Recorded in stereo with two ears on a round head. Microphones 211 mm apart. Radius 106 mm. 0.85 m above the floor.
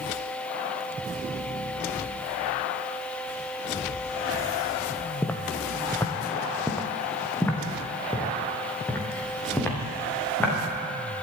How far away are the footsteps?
About 1.1 m.